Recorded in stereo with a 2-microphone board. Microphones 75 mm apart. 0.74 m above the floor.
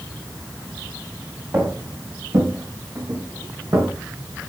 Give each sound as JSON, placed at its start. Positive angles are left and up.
{"t": 1.5, "sound": "footsteps", "side_deg": -40, "distance_m": 5.0}